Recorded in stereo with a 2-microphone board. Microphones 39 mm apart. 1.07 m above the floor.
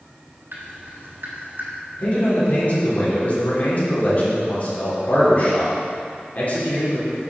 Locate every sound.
0.5 s dripping: 75° right (ahead or behind), 3 m
2.0 s a man speaking: 45° left (ahead or behind), 3 m